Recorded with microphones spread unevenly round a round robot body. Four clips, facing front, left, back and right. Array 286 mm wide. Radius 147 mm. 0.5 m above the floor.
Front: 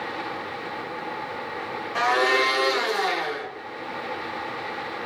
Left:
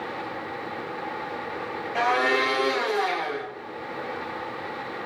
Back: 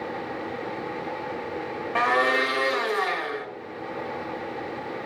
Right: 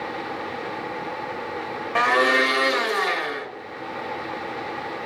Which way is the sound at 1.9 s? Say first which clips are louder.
Right 3 dB, front 1 dB; 95° right.